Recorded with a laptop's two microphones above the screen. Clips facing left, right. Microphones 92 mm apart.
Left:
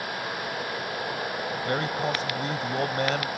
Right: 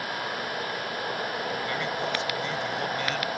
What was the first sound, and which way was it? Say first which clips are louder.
A man speaking: left 2 dB; 45° left (ahead or behind).